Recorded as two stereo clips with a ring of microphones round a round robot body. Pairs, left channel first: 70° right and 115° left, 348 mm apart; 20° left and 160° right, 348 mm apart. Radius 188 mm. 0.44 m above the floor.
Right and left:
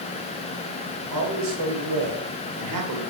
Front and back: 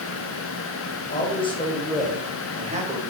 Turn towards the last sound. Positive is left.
turn(degrees=140)